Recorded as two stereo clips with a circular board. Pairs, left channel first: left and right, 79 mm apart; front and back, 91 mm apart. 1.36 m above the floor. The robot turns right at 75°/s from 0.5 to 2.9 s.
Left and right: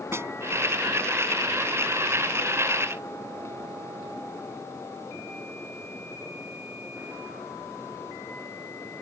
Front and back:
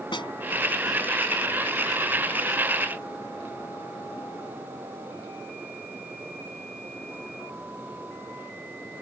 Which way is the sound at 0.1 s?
30° right.